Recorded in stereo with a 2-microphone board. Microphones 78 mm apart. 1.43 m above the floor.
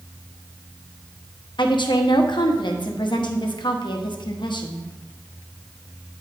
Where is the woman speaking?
80° left, 0.9 m.